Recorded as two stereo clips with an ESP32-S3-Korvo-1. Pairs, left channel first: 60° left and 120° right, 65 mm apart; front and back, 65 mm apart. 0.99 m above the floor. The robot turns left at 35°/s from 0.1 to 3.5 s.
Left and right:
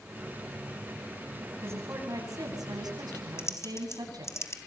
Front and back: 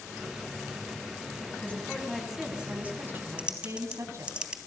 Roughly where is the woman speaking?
Ahead right.